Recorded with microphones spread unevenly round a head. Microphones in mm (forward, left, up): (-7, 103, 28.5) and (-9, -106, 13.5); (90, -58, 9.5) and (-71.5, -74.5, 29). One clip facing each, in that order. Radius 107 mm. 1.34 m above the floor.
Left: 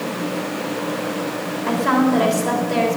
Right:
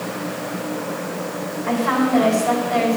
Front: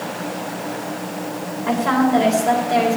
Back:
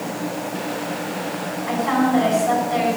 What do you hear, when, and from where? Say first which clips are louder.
1.7 s a woman speaking: left 2 dB, front 2 dB; 45° left, 3.5 m